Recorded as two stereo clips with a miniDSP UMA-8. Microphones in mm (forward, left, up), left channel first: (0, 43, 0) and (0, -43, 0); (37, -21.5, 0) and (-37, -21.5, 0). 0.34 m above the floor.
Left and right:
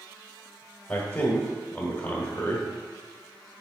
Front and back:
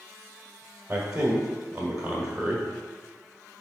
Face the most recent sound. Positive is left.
turn(degrees=110)